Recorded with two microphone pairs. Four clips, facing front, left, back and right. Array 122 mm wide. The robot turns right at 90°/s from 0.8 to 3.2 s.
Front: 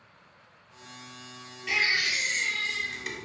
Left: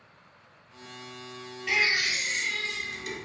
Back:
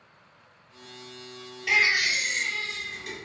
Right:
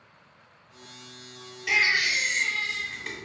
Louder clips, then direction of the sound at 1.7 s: Right 2 dB, back 4 dB; 175° right.